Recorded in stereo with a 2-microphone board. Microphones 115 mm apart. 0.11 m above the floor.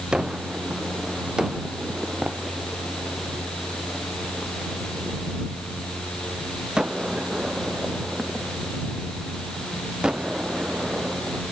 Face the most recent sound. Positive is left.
turn(degrees=-5)  # may be behind; listen again after turning